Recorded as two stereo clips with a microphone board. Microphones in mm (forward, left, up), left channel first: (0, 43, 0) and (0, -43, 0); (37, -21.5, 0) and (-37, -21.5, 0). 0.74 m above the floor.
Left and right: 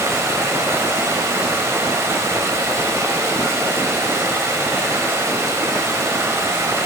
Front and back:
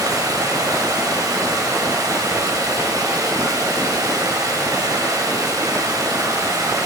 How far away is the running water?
About 2.5 m.